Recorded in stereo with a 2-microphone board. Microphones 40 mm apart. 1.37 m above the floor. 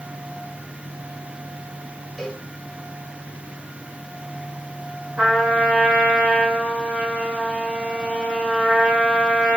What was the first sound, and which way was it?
A cowbell, centre (ahead or behind).